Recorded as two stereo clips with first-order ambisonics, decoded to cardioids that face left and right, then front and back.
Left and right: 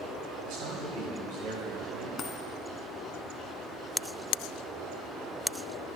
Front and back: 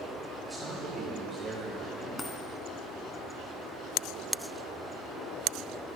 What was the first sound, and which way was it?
A man speaking, 95° right.